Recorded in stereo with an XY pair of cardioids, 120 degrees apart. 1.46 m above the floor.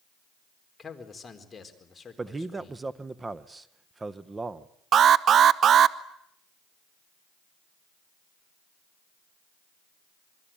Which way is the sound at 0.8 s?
25° left.